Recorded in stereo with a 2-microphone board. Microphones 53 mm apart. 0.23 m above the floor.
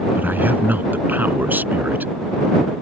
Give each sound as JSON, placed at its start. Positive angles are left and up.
{"t": 0.1, "sound": "a man speaking", "side_deg": -40}